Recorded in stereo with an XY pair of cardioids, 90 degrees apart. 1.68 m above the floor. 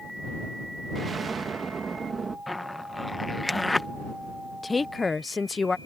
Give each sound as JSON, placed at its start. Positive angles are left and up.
{"t": 0.9, "sound": "an explosion", "azimuth_deg": -40}
{"t": 2.5, "sound": "a zipper", "azimuth_deg": 15}
{"t": 4.6, "sound": "a woman speaking", "azimuth_deg": 30}